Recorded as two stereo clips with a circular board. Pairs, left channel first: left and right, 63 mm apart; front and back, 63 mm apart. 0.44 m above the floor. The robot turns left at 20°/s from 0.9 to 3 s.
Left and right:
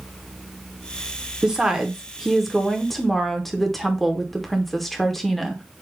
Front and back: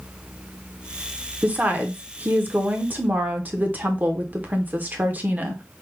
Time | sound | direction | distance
1.4 | a woman speaking | 155° right | 0.8 m